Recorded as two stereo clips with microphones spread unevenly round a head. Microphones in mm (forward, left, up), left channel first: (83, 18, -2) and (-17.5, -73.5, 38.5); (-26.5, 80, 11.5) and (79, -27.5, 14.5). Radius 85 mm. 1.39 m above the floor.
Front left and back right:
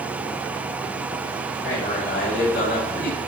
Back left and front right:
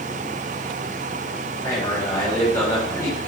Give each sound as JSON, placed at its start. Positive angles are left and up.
{"t": 1.6, "sound": "a man speaking", "azimuth_deg": 60, "distance_m": 7.0}